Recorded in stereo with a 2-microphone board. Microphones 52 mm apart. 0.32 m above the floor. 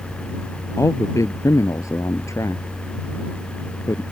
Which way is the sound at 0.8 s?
80° left.